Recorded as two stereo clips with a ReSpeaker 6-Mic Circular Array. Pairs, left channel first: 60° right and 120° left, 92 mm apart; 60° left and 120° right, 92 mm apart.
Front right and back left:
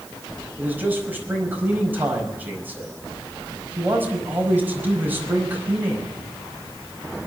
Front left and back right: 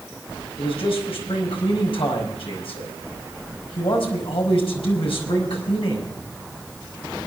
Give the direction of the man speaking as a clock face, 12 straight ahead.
10 o'clock.